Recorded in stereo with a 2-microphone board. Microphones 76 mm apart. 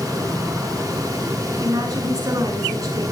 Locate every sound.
1.6 s a woman speaking: 45° right (ahead or behind), 7.5 m